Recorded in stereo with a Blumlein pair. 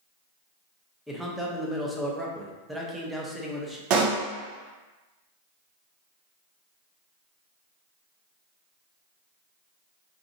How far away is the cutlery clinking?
No cutlery clinking in this recording.